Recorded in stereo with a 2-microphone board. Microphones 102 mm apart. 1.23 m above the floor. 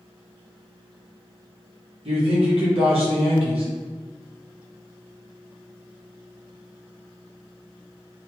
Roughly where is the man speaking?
Right.